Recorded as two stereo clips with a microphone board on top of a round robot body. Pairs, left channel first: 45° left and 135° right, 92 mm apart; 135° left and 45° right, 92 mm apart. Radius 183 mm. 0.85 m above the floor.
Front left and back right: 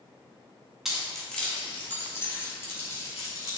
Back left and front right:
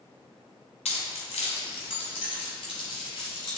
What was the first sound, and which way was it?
Keys jangling, 140° left.